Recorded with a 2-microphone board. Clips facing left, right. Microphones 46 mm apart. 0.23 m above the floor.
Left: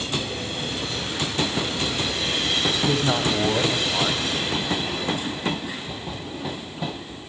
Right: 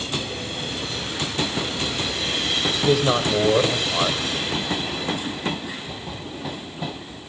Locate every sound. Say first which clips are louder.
2.8 s a man speaking: right 6 dB; 75° right (ahead or behind), 6.5 m